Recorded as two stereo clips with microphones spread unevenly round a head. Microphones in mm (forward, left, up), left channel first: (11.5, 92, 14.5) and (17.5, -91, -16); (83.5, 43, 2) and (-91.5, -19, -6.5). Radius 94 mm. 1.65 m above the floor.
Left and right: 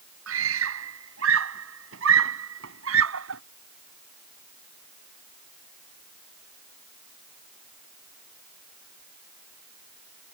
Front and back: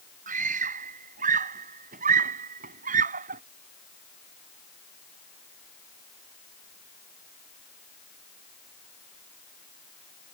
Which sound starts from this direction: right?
A scream, at 0.3 s.